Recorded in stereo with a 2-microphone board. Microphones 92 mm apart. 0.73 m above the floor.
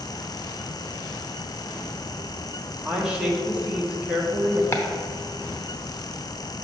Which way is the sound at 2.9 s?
10° right (ahead or behind).